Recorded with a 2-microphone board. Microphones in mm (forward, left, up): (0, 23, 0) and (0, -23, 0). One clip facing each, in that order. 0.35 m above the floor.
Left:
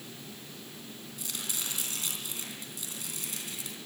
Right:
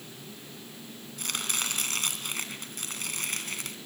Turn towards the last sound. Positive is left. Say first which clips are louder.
# right 7 dB
turn(degrees=-60)  # may be behind; listen again after turning